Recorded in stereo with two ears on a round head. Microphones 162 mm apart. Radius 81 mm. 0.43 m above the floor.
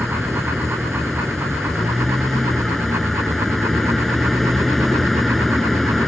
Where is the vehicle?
Centre (ahead or behind).